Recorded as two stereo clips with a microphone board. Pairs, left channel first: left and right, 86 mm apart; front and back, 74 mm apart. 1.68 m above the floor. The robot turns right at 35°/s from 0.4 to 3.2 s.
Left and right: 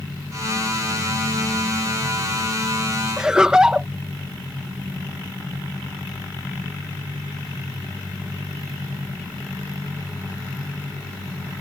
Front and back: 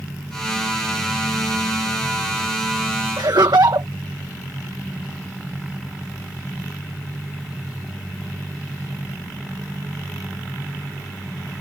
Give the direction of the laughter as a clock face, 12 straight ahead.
6 o'clock.